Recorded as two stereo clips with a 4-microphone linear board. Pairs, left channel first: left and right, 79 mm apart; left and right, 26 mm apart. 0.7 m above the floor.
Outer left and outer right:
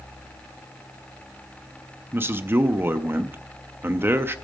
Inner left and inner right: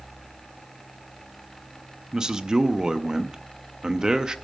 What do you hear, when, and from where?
2.1 s a man speaking: 30° right (ahead or behind), 0.6 m